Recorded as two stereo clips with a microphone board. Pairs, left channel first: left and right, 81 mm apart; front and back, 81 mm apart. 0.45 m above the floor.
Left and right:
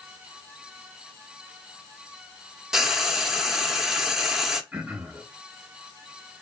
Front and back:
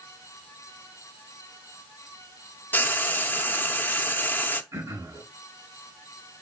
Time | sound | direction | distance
2.7 | frying | 15° right | 0.8 m
4.7 | throat clearing | 160° right | 2 m